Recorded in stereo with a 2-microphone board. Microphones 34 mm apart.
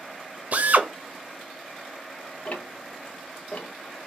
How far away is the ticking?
About 0.7 m.